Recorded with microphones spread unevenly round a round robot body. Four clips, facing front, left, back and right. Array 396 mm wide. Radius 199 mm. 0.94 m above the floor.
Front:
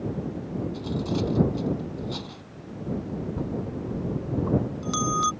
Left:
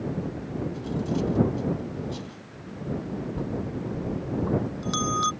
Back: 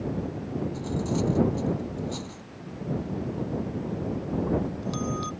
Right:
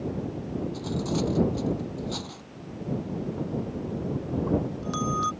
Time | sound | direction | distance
0.7 | cutlery clinking | 65° right | ?
3.4 | a bell | 30° left | ?